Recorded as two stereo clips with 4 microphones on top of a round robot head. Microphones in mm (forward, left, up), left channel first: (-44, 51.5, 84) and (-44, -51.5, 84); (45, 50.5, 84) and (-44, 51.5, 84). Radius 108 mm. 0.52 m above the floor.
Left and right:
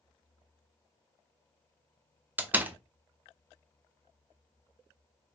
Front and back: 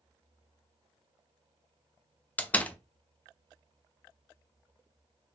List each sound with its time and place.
2.4 s a door slam: 45° right, 0.5 m